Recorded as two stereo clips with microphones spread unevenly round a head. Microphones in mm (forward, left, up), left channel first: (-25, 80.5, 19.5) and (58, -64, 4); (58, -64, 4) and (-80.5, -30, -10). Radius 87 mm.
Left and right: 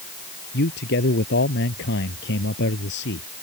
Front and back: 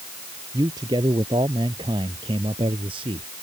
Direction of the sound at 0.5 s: 95° left.